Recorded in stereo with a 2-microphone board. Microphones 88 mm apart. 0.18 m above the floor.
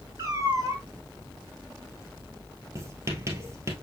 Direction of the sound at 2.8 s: 35° right (ahead or behind).